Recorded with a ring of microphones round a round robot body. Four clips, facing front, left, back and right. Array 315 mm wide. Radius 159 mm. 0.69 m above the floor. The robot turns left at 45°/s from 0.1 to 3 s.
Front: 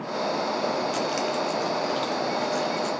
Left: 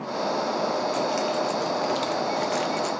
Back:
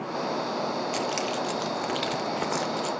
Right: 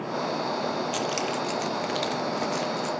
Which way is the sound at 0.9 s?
125° right.